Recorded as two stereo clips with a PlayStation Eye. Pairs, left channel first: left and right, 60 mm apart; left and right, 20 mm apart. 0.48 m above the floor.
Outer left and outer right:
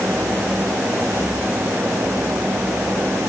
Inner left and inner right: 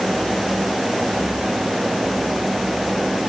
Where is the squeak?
No squeak in this recording.